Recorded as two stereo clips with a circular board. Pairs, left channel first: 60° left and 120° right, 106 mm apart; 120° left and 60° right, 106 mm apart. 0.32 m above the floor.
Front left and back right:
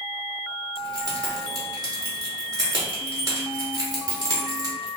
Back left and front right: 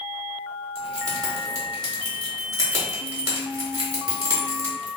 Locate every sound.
0.8 s keys jangling: 95° right, 0.9 m